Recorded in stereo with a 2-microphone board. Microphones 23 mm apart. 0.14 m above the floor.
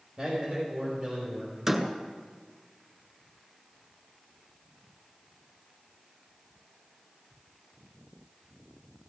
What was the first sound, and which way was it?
A man speaking, 25° right (ahead or behind).